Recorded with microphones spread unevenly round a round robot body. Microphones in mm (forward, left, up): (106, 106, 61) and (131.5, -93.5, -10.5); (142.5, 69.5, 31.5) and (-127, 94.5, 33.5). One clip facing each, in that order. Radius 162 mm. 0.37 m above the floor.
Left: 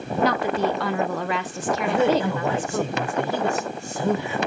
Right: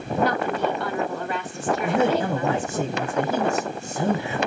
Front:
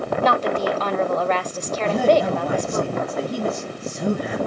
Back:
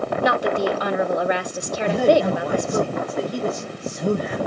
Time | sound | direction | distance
0.2 | a woman speaking | 100° left | 1.5 m
1.8 | a man speaking | 45° right | 5.5 m